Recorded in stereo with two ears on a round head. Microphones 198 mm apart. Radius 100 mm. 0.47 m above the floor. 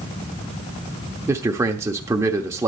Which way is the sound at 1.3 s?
10° right (ahead or behind).